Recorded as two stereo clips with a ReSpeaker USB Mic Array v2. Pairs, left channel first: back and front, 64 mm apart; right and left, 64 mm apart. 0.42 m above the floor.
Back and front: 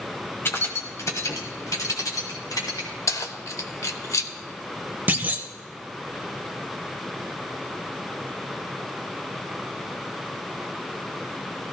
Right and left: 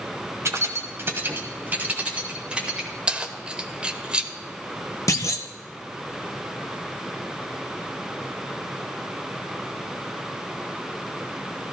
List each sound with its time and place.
0.5 s keys jangling: 130° left, 1.3 m; by 2.9 s 165° left, 2 m
3.1 s keys jangling: 160° left, 0.8 m
5.1 s a clunk: 60° right, 0.8 m